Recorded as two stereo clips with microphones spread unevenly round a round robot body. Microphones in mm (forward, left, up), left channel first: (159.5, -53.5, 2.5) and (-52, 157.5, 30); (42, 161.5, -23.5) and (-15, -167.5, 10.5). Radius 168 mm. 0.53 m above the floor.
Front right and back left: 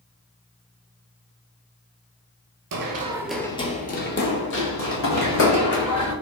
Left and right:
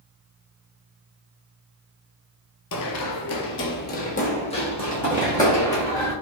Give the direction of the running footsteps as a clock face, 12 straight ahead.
8 o'clock.